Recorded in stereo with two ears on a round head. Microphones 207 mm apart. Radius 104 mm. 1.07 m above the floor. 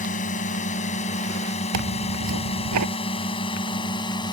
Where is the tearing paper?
85° right.